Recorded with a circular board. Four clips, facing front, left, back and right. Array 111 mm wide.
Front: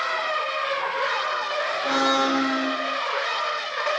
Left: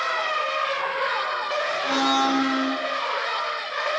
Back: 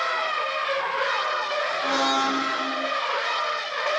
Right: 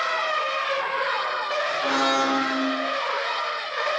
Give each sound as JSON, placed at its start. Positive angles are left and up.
{"t": 1.8, "sound": "a blender", "azimuth_deg": -85, "distance_m": 4.0}